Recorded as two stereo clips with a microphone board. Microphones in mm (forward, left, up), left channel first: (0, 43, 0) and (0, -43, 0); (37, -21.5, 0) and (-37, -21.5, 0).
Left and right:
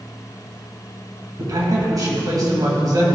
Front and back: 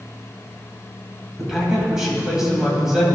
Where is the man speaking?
100° right, 2 m.